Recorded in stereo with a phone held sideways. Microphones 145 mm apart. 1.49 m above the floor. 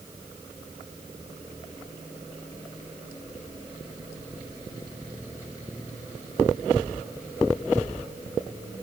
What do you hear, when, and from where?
Only background noise.